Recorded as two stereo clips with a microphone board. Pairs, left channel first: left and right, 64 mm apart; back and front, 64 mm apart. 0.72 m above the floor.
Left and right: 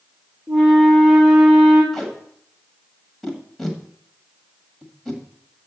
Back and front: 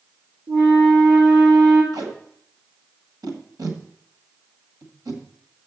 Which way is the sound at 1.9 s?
5° left.